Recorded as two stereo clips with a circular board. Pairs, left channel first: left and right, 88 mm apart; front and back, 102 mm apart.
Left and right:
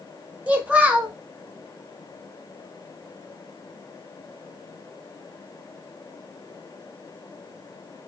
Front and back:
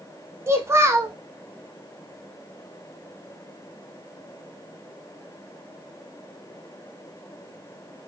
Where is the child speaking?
150° right, 0.6 m.